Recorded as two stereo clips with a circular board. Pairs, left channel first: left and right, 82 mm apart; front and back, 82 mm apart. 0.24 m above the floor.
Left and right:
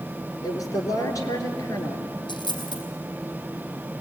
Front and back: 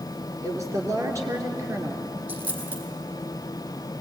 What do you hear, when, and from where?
0.4 s a woman speaking: 135° left, 3.5 m
2.3 s a dropped coin: 110° left, 3.5 m